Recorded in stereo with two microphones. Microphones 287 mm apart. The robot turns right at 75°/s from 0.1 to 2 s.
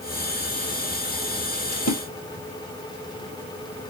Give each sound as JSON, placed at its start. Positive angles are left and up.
{"t": 1.7, "sound": "a splash", "side_deg": 45, "distance_m": 2.0}